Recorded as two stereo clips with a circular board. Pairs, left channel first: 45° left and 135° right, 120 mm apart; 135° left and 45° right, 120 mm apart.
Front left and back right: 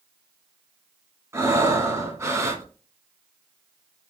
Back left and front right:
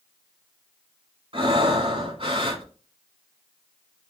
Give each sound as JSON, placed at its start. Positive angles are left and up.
{"t": 1.3, "sound": "breathing", "azimuth_deg": -75, "distance_m": 1.5}